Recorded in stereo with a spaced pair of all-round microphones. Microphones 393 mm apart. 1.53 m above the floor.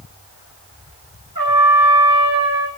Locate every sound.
1.4 s a trumpet: 60° right (ahead or behind), 9 m